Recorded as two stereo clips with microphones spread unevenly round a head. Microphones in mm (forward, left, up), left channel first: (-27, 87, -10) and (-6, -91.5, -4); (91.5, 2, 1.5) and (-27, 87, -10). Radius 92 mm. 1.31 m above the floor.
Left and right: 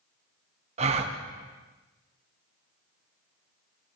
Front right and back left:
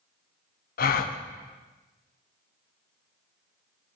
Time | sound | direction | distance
0.8 | a gasp | 30° right | 0.6 m